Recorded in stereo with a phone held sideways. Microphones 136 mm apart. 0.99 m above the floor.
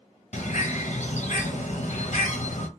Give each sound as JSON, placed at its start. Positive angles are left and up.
{"t": 0.3, "sound": "a bird", "side_deg": 60, "distance_m": 0.7}